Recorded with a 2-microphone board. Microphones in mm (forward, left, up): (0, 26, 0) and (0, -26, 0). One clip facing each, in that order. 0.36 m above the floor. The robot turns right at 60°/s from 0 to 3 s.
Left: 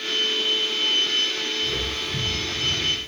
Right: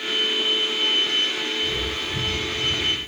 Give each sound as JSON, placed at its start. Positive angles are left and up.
{"t": 1.6, "sound": "footsteps", "side_deg": 30, "distance_m": 3.0}